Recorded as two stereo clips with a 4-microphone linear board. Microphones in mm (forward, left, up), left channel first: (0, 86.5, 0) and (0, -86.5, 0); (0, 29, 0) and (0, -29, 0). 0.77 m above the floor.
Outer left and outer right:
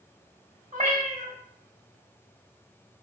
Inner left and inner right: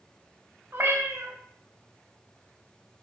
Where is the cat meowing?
50° right (ahead or behind), 0.9 m.